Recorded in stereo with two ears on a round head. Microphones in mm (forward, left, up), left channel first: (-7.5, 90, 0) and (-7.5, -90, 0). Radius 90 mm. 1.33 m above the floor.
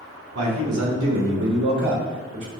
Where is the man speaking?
85° right, 1.4 m; by 2.5 s 35° right (ahead or behind), 1.3 m.